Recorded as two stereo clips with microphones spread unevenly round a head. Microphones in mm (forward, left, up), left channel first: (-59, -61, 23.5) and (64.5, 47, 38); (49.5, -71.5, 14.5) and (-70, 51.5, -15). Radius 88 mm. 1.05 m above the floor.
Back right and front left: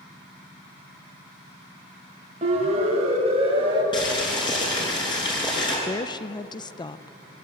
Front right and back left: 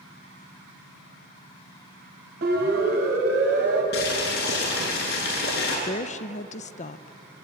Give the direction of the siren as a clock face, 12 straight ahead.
9 o'clock.